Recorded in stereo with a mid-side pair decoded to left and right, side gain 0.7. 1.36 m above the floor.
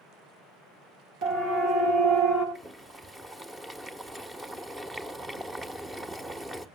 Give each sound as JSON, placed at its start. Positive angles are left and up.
{"t": 1.2, "sound": "a siren", "azimuth_deg": -65, "distance_m": 7.5}
{"t": 2.5, "sound": "boiling", "azimuth_deg": -15, "distance_m": 1.4}